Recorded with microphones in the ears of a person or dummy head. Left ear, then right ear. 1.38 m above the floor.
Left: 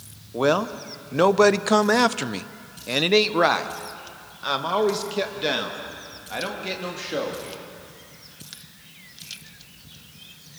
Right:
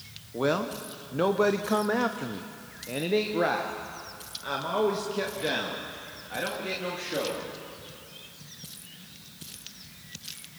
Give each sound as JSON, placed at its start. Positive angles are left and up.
{"t": 0.3, "sound": "a man speaking", "side_deg": 20, "distance_m": 1.1}